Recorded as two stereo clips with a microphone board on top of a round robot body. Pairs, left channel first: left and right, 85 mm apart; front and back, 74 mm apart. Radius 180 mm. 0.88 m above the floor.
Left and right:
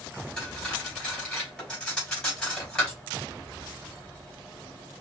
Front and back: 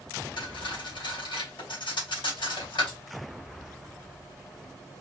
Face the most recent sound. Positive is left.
turn(degrees=5)